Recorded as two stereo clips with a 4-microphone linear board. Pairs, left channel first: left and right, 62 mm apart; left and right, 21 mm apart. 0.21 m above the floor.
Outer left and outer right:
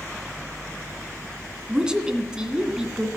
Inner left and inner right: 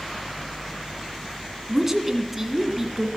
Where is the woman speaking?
10° right (ahead or behind), 2 m.